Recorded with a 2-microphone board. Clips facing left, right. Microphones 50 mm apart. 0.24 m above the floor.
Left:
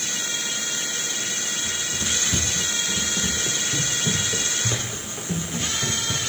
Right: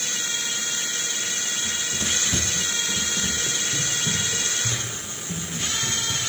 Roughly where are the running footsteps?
Centre.